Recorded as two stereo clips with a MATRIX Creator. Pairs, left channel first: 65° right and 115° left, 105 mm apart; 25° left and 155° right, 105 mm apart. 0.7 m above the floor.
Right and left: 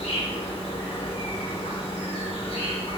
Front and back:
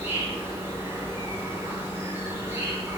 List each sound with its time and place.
0.0 s an insect: 90° right, 1.1 m